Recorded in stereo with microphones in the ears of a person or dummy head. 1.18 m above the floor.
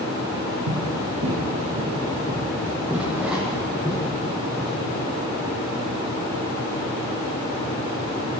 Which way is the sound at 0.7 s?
55° right (ahead or behind).